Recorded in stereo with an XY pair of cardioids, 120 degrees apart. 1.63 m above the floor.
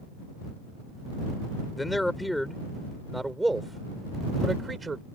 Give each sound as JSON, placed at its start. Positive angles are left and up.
{"t": 1.8, "sound": "a man speaking", "azimuth_deg": 5}